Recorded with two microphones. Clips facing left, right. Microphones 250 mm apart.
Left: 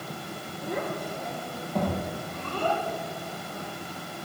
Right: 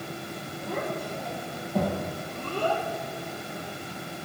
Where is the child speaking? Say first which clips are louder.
Left 1 dB; 20° left (ahead or behind), 3 m; by 2.8 s 20° right (ahead or behind), 5 m.